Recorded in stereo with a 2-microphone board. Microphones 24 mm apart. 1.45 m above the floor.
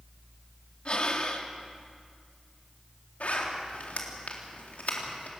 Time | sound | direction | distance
0.8 | breathing | 45° left (ahead or behind) | 2 m
3.2 | a zipper | 85° left | 3.5 m